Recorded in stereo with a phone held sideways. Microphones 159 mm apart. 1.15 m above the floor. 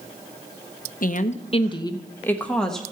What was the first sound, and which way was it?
A woman speaking, 60° left (ahead or behind).